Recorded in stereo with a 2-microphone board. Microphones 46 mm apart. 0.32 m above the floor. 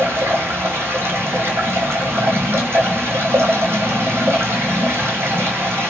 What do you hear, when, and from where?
0.0 s running water: 70° right (ahead or behind), 1.3 m